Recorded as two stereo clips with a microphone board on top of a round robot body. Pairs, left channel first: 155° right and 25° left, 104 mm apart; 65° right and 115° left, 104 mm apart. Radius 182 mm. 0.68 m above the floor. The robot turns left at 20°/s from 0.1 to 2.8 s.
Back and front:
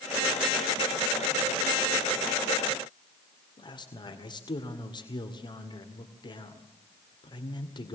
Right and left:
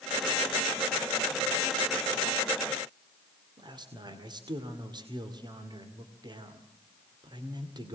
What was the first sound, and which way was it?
A man speaking, 160° left.